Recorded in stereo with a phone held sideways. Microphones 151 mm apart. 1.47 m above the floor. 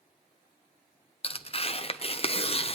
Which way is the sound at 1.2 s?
40° left (ahead or behind).